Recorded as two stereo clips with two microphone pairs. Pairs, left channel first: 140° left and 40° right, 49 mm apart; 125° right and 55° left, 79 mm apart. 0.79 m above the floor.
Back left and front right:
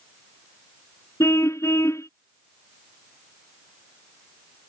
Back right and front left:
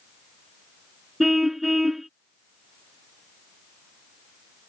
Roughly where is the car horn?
Behind left.